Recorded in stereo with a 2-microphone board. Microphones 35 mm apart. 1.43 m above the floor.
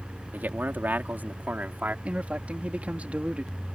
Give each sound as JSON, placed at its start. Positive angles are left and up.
{"t": 0.3, "sound": "a man speaking", "side_deg": -70}
{"t": 2.0, "sound": "a man speaking", "side_deg": -45}